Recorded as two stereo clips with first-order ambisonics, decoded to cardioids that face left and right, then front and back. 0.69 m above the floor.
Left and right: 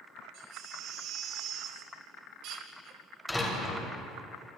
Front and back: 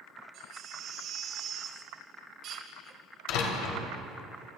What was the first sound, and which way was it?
A baby crying, 130° right.